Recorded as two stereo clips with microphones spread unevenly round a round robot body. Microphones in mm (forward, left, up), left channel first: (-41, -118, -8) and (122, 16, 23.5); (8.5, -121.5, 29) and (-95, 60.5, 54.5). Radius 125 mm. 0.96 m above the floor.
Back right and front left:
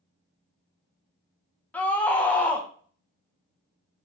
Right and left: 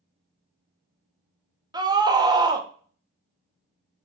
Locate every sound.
1.7 s a scream: 175° left, 0.8 m